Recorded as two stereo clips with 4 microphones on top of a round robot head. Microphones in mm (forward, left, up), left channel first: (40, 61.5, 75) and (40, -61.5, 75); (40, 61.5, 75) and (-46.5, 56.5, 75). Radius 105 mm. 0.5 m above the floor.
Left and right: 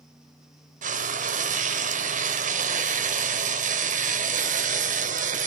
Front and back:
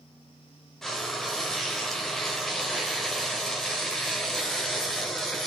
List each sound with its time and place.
0.8 s frying: 85° right, 1.1 m